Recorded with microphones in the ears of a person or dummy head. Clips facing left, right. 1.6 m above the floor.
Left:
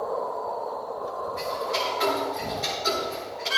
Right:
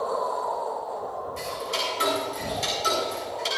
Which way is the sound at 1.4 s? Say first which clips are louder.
Left 3 dB; 40° right (ahead or behind).